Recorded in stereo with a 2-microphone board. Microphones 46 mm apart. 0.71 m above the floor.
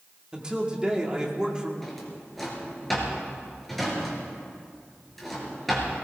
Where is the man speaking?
20° right (ahead or behind), 1.8 m.